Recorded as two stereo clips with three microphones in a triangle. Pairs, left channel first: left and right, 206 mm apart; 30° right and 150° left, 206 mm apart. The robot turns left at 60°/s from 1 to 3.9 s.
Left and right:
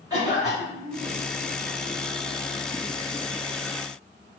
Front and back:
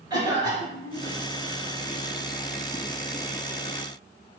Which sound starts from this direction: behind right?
A cough, at 0.1 s.